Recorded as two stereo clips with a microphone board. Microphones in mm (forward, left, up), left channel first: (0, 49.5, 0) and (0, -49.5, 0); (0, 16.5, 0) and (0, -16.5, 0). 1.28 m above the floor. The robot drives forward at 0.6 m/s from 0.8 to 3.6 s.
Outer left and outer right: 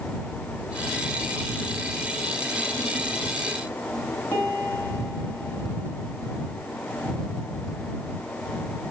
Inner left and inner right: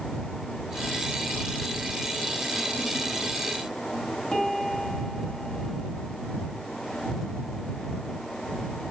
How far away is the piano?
About 4.5 m.